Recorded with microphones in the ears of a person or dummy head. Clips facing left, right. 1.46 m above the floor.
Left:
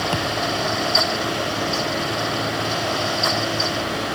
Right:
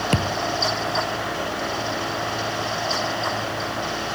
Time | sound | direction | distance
0.1 | a thud | 30° right (ahead or behind) | ?